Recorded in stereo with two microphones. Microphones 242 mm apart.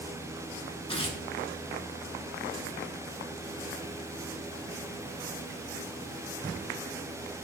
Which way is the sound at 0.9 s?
20° left (ahead or behind).